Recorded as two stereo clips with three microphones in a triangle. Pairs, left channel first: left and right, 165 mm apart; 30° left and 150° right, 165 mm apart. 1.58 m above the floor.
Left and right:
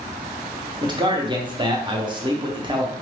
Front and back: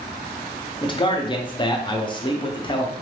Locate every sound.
0.8 s a man speaking: 30° right, 0.8 m